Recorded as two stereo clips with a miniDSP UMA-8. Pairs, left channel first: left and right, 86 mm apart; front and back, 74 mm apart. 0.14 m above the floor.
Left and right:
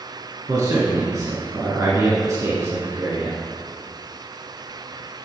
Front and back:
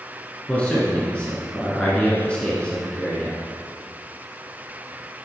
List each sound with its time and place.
0.5 s a man speaking: 65° right, 1.3 m